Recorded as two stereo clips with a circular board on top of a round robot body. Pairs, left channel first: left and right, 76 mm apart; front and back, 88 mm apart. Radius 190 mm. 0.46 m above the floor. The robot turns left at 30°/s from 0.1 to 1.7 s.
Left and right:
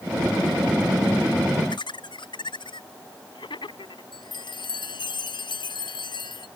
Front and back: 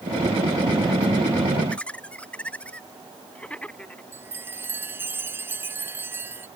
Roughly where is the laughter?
Left.